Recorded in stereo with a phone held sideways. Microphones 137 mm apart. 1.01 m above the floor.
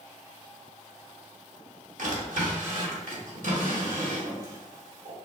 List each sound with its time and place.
2.0 s a drawer: 70° right (ahead or behind), 1.4 m